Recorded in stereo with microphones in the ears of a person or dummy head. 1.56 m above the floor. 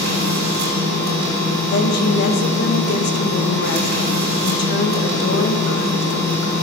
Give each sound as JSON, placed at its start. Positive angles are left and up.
{"t": 0.0, "sound": "a machine running", "side_deg": -55, "distance_m": 5.0}
{"t": 1.7, "sound": "a woman speaking", "side_deg": 60, "distance_m": 2.0}